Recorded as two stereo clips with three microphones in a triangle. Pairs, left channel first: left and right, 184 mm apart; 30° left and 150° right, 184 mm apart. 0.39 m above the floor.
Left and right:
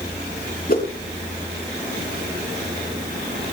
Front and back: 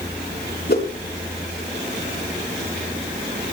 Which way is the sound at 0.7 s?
55° left.